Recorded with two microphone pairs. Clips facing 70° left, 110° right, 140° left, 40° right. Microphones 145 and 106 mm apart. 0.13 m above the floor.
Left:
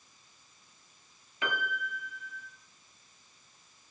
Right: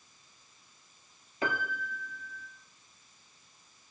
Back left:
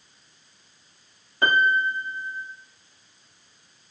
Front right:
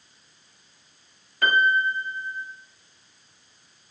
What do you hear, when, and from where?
1.4 s a piano: 160° right, 0.7 m